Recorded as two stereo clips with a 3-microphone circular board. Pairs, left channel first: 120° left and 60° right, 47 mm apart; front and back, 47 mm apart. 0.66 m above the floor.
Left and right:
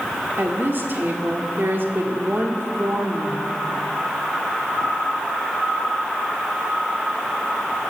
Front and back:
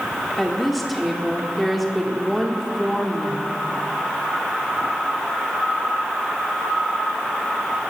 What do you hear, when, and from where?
0.4 s a woman speaking: 90° right, 1.4 m